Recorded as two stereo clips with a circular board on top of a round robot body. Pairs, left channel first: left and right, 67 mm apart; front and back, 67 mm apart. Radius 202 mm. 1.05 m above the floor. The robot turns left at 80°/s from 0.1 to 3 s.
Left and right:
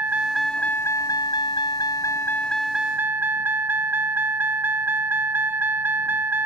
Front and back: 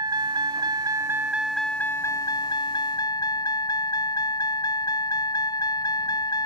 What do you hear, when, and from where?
0.0 s a vehicle: 155° right; by 6.5 s 25° right